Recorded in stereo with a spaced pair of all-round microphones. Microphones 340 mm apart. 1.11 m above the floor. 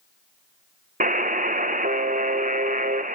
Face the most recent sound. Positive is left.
turn(degrees=-25)  # may be behind; listen again after turning